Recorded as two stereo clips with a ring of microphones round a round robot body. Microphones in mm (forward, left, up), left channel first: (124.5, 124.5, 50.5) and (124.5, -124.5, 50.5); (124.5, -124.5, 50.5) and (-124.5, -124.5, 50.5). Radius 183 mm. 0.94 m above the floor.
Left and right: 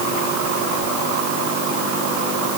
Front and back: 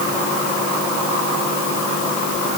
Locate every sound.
Only background noise.